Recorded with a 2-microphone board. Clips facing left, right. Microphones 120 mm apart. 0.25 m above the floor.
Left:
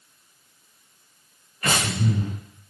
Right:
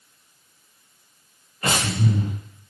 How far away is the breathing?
About 5.5 m.